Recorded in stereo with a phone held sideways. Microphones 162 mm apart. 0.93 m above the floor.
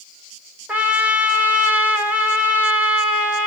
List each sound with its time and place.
0.7 s a trumpet: 10° right (ahead or behind), 2 m